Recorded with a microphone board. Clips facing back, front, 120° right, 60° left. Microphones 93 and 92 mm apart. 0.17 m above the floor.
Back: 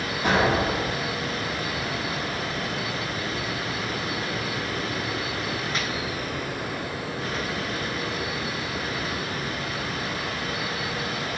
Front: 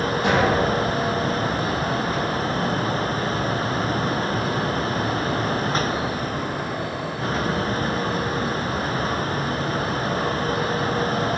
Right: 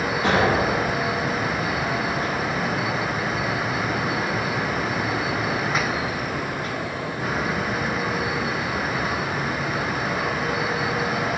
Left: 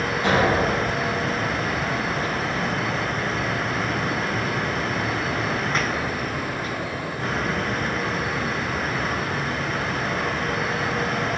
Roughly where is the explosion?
Ahead.